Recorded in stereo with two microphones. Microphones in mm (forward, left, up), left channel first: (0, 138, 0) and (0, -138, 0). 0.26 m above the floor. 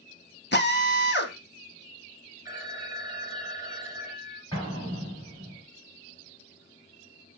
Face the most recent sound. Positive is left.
turn(degrees=15)  # may be behind; listen again after turning